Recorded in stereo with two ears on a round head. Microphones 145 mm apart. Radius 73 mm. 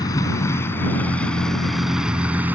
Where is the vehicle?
20° left (ahead or behind); by 2.5 s 10° right (ahead or behind).